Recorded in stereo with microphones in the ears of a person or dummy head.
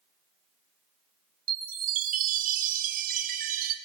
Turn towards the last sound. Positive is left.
turn(degrees=-55)  # may be behind; listen again after turning